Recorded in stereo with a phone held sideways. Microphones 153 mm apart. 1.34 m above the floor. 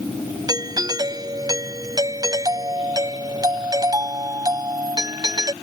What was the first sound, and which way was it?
A doorbell, 25° right (ahead or behind).